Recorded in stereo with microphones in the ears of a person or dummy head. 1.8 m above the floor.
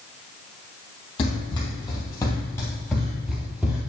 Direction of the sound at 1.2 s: 30° left (ahead or behind).